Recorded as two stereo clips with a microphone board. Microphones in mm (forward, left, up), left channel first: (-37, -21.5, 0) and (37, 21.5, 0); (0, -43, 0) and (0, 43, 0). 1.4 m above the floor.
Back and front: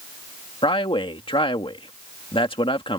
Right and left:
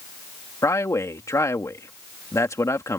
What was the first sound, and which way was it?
A man speaking, 145° right.